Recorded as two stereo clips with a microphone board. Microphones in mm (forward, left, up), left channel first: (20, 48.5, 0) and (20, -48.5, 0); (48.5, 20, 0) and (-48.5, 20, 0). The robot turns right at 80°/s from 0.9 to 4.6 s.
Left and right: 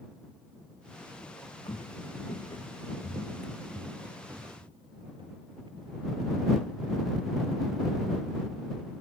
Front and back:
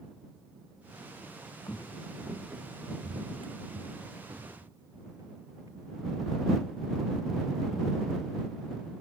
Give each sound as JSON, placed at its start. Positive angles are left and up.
{"t": 1.7, "sound": "footsteps", "azimuth_deg": 60}